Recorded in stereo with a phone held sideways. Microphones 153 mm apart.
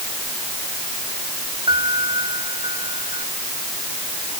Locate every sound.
1.7 s a piano: 30° right (ahead or behind)